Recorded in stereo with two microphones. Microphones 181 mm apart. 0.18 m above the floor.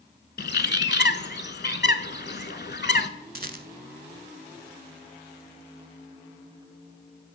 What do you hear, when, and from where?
0.4 s a bird: 70° left (ahead or behind), 0.5 m
3.4 s a rattle: 55° right (ahead or behind), 0.6 m